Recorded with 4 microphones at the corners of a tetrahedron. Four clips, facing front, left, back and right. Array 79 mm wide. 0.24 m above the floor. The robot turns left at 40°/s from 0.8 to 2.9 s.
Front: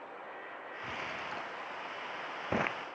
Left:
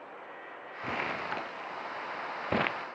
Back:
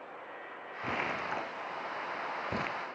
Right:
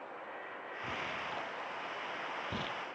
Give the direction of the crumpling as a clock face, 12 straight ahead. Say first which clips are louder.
Left 7 dB, back 6 dB; 7 o'clock.